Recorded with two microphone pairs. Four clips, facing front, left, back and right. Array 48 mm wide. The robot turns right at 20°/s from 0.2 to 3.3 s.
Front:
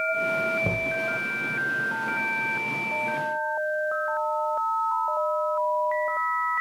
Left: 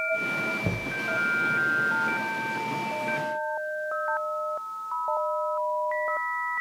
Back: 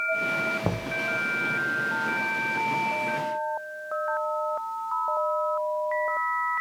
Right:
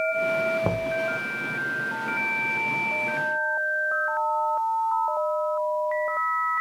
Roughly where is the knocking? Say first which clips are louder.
Right 5 dB, front 3 dB; right.